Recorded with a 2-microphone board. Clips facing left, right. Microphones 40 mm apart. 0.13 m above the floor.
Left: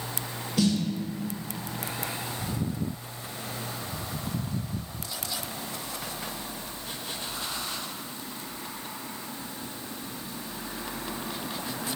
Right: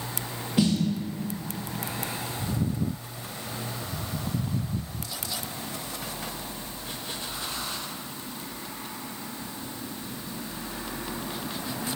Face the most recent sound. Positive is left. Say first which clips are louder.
# right 1 dB
turn(degrees=-20)  # may be behind; listen again after turning